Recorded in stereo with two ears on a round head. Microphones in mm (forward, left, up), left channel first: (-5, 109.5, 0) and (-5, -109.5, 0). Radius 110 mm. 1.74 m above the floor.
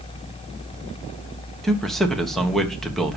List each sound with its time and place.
1.6 s a man speaking: centre (ahead or behind), 1.5 m